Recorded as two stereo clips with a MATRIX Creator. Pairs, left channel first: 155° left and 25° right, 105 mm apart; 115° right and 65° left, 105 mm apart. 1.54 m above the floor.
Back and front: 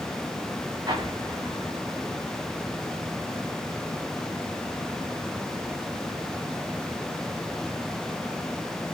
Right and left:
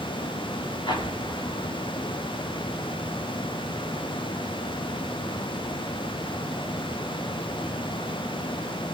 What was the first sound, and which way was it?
An explosion, 70° right.